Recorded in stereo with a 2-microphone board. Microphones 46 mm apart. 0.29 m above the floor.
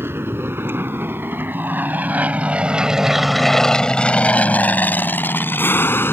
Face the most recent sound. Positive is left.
turn(degrees=60)  # may be behind; listen again after turning